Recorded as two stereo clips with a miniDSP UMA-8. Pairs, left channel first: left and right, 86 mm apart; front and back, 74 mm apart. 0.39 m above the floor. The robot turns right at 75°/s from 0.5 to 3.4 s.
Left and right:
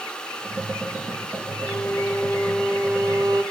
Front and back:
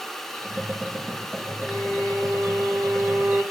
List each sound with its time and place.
1.6 s a violin: 110° left, 2 m; by 3.4 s 120° right, 2 m